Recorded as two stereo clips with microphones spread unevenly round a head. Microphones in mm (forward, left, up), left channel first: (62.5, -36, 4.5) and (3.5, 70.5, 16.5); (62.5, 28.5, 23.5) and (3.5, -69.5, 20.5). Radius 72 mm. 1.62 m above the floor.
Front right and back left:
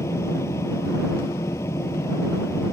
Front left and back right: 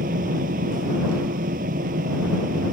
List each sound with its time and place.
0.0 s a fan: 135° right